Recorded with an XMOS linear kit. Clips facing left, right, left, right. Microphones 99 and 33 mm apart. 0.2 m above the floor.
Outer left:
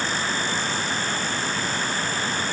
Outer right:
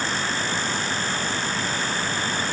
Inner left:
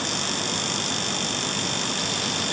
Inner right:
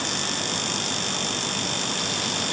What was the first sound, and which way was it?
Only background noise.